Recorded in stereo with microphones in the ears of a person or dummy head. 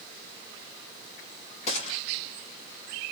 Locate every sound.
1.7 s a gunshot: 40° left (ahead or behind), 2.5 m